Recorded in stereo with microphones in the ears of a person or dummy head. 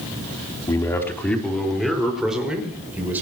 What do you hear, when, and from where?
0.7 s a man speaking: 20° left (ahead or behind), 3.5 m; by 3.2 s 10° right (ahead or behind), 6 m